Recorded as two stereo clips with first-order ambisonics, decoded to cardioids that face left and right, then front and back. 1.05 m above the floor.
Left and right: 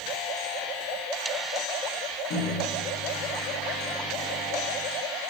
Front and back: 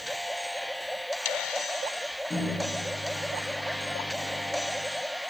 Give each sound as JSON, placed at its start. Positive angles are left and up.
{"t": 2.3, "sound": "a microwave", "azimuth_deg": 75, "distance_m": 1.2}